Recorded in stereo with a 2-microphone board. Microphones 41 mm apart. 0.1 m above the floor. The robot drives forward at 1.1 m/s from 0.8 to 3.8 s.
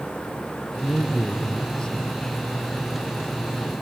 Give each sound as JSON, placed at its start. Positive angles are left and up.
{"t": 0.8, "sound": "a man speaking", "side_deg": 30, "distance_m": 1.4}